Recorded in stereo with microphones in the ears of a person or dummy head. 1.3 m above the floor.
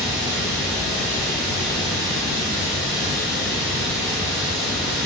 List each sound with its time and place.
0.0 s running water: 5° right (ahead or behind), 1.0 m